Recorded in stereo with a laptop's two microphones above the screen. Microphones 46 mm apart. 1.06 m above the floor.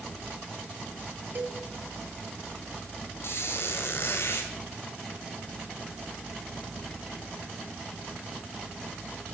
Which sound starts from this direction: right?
A cowbell, at 1.4 s.